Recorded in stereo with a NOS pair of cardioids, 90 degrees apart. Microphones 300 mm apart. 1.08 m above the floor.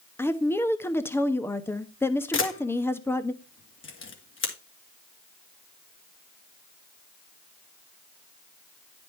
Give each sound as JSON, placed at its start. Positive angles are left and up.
{"t": 0.2, "sound": "a woman speaking", "azimuth_deg": 10, "distance_m": 1.1}
{"t": 2.3, "sound": "a camera shutter", "azimuth_deg": 45, "distance_m": 2.5}